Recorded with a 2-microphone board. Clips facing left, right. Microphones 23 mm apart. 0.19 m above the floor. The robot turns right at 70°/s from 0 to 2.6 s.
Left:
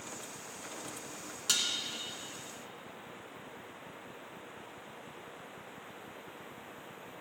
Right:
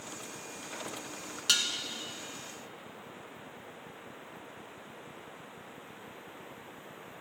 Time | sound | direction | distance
1.5 | dishes clattering | 25° right (ahead or behind) | 1.2 m